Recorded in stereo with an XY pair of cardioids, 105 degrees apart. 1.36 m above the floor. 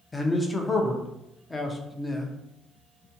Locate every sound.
0.1 s a man speaking: 20° left, 0.6 m